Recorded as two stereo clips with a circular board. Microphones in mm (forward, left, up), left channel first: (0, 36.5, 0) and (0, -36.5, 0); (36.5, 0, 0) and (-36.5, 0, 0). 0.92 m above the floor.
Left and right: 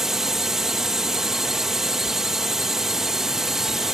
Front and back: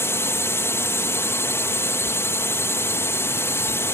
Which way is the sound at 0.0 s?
10° right.